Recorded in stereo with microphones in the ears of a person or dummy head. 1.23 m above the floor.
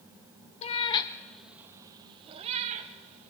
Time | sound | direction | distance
0.6 | a cat meowing | 40° left (ahead or behind) | 0.6 m